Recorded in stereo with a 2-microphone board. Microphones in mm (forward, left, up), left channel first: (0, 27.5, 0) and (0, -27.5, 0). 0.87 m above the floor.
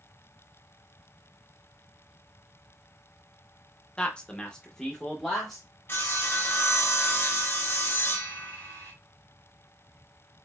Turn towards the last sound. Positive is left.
turn(degrees=45)  # may be behind; listen again after turning